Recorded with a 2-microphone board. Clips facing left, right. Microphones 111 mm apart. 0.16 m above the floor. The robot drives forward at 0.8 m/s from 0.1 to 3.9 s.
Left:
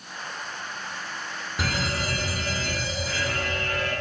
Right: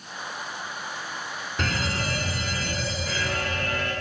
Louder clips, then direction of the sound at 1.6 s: Even; 10° left (ahead or behind).